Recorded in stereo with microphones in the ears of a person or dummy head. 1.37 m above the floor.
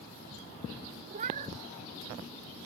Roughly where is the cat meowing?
Right.